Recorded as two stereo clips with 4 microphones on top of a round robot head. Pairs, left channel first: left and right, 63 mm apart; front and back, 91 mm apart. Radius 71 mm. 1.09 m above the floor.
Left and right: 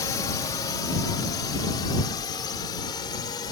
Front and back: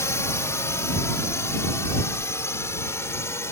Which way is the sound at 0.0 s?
55° left.